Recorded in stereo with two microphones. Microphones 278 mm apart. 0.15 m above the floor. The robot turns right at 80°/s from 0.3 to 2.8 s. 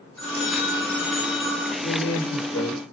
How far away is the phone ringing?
About 4.5 m.